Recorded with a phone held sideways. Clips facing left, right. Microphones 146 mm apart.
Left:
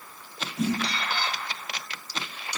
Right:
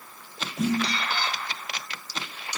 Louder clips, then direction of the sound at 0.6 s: Right 2 dB; 30° right (ahead or behind).